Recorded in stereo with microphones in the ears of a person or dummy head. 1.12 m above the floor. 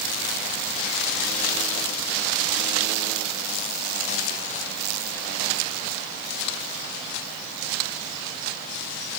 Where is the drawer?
I don't hear a drawer.